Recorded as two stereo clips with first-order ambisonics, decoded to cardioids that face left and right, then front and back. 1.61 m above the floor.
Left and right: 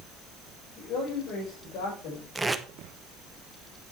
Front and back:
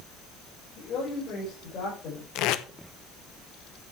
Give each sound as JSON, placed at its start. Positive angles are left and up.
{"t": 0.8, "sound": "a man speaking", "azimuth_deg": 50, "distance_m": 5.0}
{"t": 2.4, "sound": "tape being pulled", "azimuth_deg": -5, "distance_m": 0.9}